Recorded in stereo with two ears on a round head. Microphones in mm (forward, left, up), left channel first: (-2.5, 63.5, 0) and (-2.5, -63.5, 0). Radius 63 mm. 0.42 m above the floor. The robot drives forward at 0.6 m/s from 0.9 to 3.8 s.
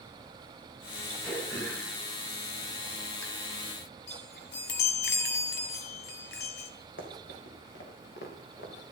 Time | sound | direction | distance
1.2 | throat clearing | 10° left (ahead or behind) | 4 m
4.1 | a chime | 80° left | 1.1 m
7.0 | running footsteps | 80° left | 3.5 m